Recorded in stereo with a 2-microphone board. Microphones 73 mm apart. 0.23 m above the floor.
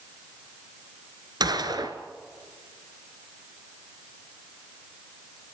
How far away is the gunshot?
About 1.9 m.